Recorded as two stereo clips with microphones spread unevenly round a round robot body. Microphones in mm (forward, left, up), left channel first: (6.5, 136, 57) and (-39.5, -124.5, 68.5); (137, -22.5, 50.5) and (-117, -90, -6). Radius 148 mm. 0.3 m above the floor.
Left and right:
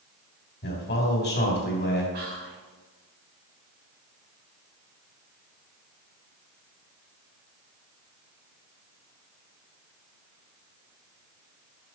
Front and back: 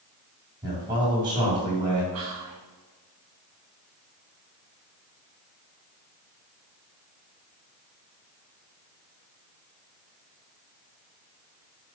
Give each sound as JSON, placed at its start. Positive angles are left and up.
{"t": 0.6, "sound": "a man speaking", "azimuth_deg": 125, "distance_m": 3.0}
{"t": 2.1, "sound": "whispering", "azimuth_deg": -150, "distance_m": 2.5}